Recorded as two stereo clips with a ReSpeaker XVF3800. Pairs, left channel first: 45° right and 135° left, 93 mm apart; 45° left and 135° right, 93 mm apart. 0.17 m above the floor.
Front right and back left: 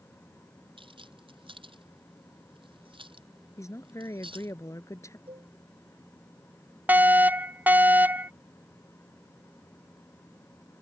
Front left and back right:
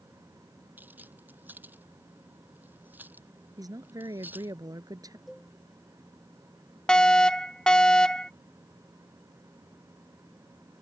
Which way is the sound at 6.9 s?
110° left.